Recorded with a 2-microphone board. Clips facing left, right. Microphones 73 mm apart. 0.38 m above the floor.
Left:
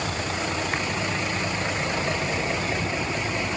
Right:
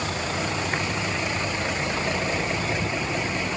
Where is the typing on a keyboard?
I don't hear typing on a keyboard.